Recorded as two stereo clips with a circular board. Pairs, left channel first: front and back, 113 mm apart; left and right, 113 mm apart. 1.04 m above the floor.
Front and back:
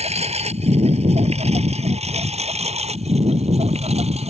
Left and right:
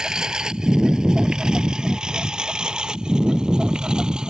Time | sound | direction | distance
0.0 | a lawn mower | 175° right | ?